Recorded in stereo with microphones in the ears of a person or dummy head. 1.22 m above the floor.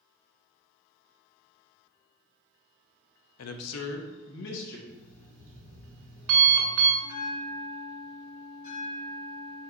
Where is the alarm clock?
65° right (ahead or behind), 1.8 m.